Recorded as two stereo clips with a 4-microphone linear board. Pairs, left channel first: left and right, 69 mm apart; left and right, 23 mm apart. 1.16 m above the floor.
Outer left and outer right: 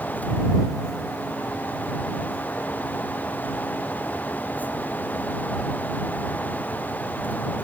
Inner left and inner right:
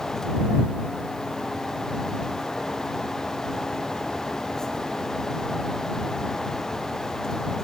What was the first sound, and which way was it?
Only background noise.